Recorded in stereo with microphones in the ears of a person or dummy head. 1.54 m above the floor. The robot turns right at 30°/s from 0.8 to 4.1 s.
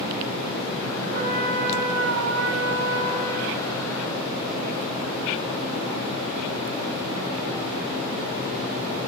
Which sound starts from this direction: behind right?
A trumpet, at 1.1 s.